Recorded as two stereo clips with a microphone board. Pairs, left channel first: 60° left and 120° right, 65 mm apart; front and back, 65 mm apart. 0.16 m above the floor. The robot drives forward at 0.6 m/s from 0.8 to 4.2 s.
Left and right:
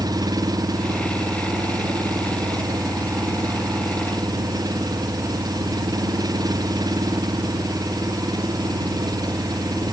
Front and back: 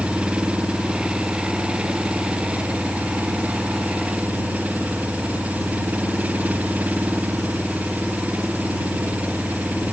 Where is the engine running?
105° right; by 9.9 s 115° right.